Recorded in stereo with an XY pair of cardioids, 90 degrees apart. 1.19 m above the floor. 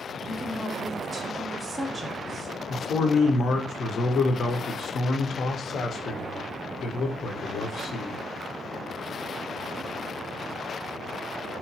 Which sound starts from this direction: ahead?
A woman speaking, at 0.2 s.